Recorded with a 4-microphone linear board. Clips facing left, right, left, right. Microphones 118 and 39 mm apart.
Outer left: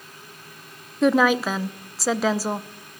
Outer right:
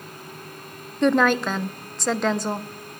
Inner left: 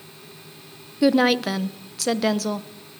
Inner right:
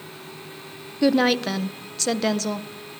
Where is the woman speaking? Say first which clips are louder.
Outer left 1 dB, inner left 1 dB; 5° left (ahead or behind), 0.9 m.